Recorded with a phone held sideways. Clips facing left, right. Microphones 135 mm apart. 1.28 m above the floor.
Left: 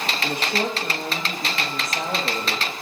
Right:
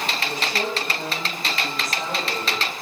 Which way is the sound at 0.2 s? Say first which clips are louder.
Left 4 dB; 65° left (ahead or behind).